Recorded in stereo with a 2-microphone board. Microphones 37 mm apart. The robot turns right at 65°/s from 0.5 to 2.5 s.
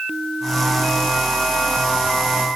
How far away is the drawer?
I don't hear a drawer.